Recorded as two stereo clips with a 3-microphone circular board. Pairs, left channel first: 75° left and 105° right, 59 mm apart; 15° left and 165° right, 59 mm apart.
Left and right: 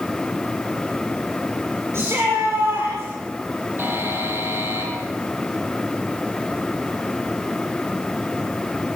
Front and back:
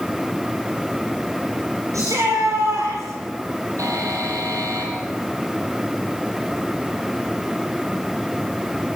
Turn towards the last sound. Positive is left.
turn(degrees=-155)